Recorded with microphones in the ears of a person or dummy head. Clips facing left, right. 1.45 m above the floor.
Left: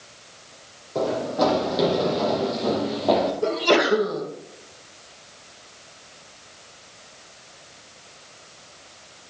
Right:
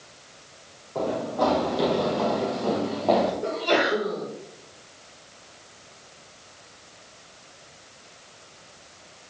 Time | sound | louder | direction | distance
0.9 | running footsteps | left 3 dB | 30° left (ahead or behind) | 4 m
3.4 | a sneeze | left 4 dB | 70° left (ahead or behind) | 2 m